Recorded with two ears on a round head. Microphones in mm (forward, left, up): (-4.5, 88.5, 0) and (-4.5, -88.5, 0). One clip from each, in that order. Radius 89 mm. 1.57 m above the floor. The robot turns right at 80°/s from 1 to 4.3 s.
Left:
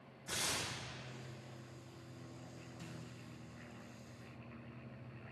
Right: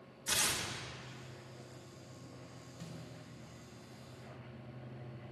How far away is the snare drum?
About 1.6 m.